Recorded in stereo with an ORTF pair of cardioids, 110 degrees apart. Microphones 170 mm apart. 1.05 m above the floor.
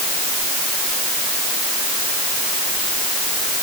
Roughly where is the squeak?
No squeak in this recording.